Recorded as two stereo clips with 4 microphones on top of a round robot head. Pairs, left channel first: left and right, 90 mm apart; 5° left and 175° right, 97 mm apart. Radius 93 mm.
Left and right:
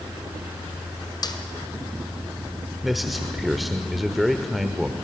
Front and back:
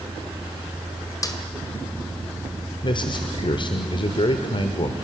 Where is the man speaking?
Straight ahead, 1.1 m.